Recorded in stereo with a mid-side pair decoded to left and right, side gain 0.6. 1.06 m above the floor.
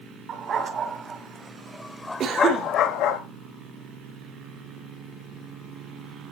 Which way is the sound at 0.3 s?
45° right.